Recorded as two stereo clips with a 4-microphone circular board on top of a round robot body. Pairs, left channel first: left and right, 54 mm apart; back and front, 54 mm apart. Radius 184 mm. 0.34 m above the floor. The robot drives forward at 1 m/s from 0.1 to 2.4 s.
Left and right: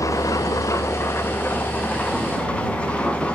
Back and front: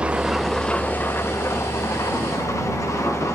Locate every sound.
0.0 s an engine running: 70° left, 0.9 m; by 3.4 s 160° left, 2 m